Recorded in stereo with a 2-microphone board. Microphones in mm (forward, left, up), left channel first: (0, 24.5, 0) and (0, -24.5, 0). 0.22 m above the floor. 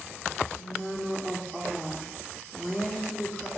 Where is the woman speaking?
25° right (ahead or behind), 9.5 m; by 3.5 s 35° right (ahead or behind), 13 m.